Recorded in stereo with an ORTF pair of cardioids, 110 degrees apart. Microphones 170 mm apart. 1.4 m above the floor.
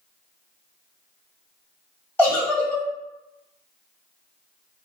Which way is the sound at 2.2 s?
10° left.